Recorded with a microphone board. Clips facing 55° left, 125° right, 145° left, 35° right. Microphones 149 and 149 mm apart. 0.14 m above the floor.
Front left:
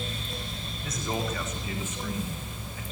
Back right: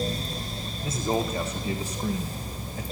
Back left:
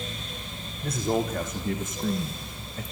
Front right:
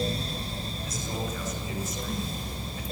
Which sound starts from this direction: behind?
A man speaking, at 0.8 s.